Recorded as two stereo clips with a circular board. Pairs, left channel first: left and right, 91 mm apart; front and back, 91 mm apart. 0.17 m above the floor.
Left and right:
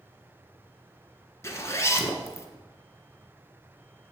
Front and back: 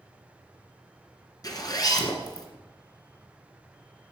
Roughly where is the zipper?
Ahead left.